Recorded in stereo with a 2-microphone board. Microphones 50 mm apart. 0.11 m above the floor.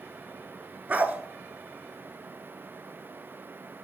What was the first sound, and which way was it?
A dog barking, 30° right (ahead or behind).